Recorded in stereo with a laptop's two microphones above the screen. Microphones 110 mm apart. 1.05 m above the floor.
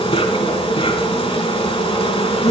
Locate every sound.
0.0 s an insect: 60° left (ahead or behind), 4 m